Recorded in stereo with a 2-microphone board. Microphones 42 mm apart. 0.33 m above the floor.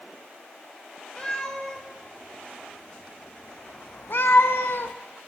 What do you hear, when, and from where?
1.2 s a cat meowing: 10° left (ahead or behind), 1.8 m; by 5.0 s 60° left (ahead or behind), 0.5 m